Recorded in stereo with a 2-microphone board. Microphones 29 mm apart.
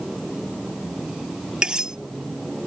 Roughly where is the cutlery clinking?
Right.